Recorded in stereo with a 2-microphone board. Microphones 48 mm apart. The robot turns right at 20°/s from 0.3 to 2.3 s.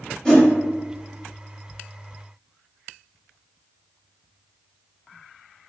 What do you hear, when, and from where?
0.2 s a whoosh: 15° left (ahead or behind), 1.1 m